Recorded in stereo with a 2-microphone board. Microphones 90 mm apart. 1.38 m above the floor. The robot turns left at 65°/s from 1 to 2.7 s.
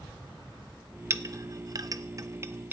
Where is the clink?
30° right (ahead or behind), 0.6 m; by 2.7 s 20° right (ahead or behind), 0.6 m.